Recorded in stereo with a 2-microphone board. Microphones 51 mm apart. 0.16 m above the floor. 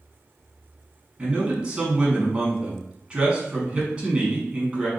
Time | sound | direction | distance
1.2 | a man speaking | 20° right (ahead or behind) | 1.3 m